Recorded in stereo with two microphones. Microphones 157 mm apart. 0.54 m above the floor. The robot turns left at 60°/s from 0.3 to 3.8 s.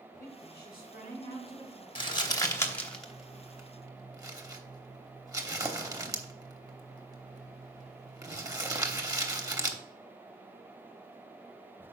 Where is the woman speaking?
100° left, 5 m; by 1.9 s 5° left, 5 m.